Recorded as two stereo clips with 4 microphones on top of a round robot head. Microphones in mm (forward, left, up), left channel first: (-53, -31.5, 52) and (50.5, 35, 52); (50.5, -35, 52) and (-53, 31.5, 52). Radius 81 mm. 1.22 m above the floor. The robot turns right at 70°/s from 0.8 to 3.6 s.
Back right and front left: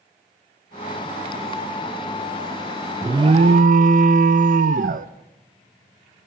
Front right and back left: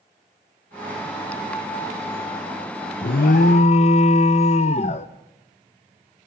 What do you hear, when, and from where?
3.0 s an alarm: 35° right, 0.7 m; by 5.1 s 10° left, 0.7 m